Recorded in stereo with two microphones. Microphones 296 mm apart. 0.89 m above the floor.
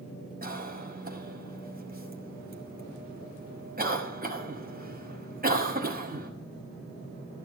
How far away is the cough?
About 5.5 m.